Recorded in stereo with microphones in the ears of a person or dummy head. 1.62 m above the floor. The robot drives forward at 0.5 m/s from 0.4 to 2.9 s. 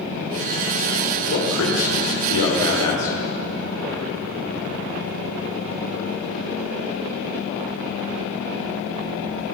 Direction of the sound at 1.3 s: 80° left.